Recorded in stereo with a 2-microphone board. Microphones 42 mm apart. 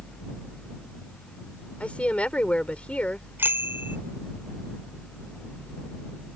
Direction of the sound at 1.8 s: 30° left (ahead or behind).